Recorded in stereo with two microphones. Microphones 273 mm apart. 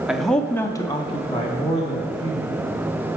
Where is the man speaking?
Centre (ahead or behind), 0.8 m; by 2.8 s 20° left (ahead or behind), 1.7 m.